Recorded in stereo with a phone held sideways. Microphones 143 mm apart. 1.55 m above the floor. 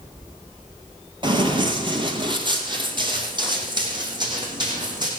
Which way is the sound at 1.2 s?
35° right (ahead or behind).